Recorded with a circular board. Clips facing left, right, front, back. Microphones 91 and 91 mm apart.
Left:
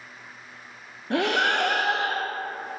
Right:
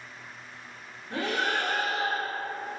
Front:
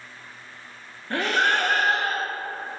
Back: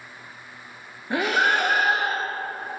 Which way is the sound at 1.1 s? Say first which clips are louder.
Left 6 dB, back 1 dB; 100° left.